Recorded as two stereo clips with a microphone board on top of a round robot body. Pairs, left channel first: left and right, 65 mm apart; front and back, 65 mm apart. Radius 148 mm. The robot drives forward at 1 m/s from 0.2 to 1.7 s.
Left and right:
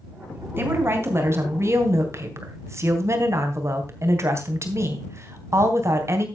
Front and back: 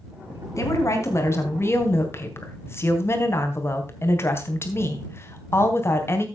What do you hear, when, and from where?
0.6 s a woman speaking: 40° right, 4.5 m; by 6.3 s 50° right, 3.5 m